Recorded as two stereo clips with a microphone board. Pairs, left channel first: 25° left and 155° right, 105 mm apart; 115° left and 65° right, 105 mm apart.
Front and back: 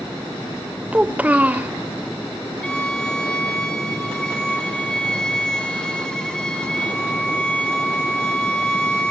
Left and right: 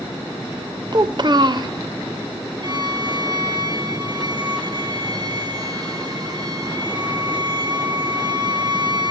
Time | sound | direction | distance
0.9 | a child speaking | 85° right | 0.7 m
2.6 | a violin | 55° right | 1.6 m